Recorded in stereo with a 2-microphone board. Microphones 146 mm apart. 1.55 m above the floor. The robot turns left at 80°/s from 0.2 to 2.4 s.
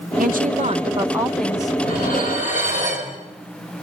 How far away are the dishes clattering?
About 5 m.